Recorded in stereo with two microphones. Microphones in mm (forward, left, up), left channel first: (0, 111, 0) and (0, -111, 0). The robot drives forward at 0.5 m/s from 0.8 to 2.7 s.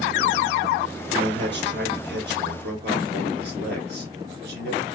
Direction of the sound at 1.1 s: 55° right (ahead or behind).